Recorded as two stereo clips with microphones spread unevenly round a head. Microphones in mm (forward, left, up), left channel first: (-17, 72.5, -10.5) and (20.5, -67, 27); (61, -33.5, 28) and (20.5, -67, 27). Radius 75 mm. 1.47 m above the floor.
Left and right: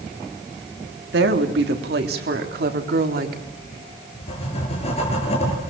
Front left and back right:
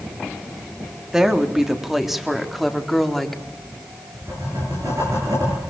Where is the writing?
160° left, 7 m.